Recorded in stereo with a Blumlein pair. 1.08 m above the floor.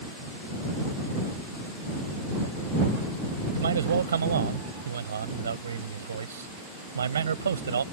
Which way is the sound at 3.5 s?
70° right.